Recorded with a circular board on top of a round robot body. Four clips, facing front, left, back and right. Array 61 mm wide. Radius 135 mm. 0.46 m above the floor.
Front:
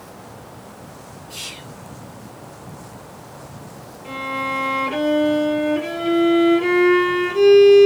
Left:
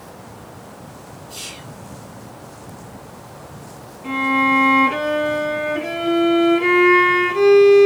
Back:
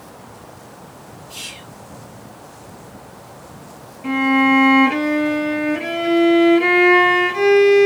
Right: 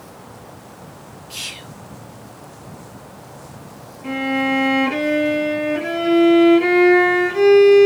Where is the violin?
165° right, 3 m.